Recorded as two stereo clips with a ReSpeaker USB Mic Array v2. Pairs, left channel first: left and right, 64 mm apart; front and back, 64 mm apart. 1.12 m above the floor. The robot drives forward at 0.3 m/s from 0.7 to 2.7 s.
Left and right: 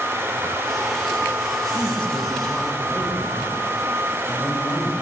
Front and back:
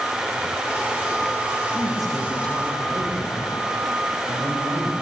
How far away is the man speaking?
About 4 m.